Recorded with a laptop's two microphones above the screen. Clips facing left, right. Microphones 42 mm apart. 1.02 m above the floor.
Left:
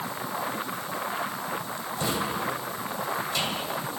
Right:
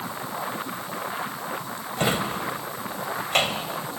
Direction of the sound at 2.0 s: 55° right (ahead or behind).